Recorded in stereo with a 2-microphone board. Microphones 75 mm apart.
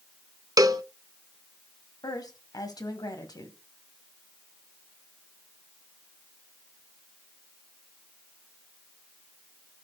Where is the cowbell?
55° right (ahead or behind), 0.7 m.